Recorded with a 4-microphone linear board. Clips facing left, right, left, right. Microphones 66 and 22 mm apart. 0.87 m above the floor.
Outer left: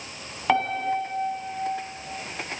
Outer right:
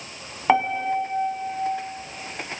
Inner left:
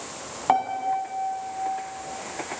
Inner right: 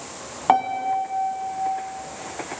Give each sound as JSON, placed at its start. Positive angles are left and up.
{"t": 0.5, "sound": "a piano", "side_deg": -15, "distance_m": 1.8}